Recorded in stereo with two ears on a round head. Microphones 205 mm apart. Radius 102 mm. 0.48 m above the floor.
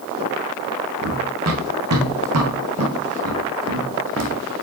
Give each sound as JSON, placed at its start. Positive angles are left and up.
{"t": 1.0, "sound": "running footsteps", "side_deg": -75, "distance_m": 2.5}